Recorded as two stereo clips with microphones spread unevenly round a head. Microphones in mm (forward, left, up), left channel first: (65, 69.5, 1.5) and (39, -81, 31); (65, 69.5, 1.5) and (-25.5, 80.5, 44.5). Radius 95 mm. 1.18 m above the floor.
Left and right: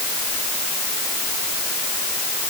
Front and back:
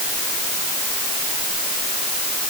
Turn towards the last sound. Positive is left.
No sound to turn to.